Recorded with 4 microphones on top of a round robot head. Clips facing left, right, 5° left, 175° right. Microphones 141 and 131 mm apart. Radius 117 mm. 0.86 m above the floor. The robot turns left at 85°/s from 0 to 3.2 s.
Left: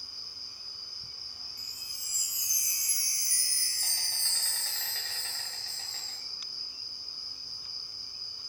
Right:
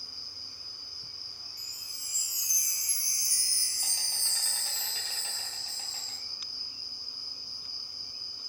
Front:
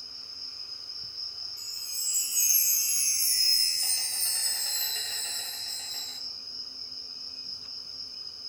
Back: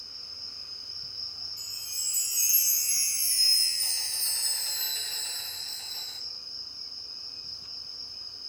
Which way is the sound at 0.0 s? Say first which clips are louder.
Right 2 dB, even; 100° right.